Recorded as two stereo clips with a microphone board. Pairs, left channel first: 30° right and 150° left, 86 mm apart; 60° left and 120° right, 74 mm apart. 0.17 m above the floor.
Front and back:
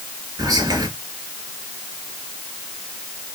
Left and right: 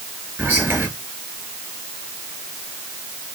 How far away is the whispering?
About 2.5 m.